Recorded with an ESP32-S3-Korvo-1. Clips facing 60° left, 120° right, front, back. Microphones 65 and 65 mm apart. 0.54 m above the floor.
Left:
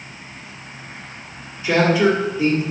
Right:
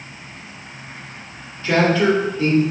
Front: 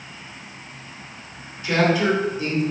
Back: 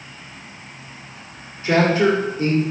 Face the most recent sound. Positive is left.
turn(degrees=135)